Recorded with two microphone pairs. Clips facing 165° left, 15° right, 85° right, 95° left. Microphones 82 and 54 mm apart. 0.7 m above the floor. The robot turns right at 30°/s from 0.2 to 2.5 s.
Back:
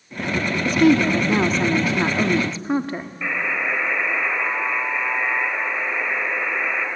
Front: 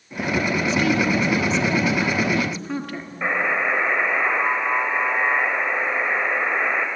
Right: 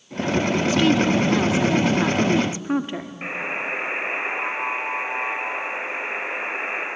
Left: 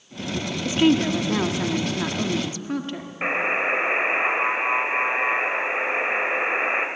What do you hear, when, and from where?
0.7 s a woman speaking: 160° left, 1.6 m; by 3.1 s 145° right, 1.6 m
3.2 s a buzzer: 40° left, 3 m